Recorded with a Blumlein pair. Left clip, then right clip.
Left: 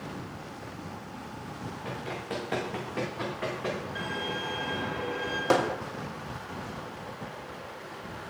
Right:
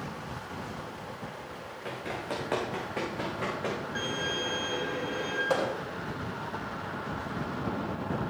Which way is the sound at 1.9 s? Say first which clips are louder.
Right 2 dB; 35° right.